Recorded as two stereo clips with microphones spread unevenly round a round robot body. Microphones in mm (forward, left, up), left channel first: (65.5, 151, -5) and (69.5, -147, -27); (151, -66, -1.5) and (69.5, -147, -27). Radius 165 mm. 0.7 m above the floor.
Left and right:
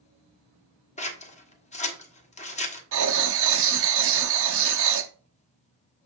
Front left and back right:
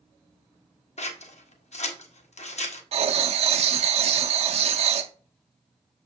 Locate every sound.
1.0 s scissors: 25° left, 1.4 m
2.9 s writing: 140° right, 0.5 m